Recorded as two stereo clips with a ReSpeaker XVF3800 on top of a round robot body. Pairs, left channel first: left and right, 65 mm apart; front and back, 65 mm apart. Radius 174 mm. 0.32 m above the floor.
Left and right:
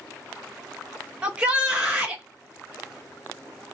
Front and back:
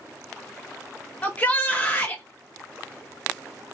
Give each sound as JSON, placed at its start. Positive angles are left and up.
{"t": 1.2, "sound": "a shout", "azimuth_deg": -35, "distance_m": 1.2}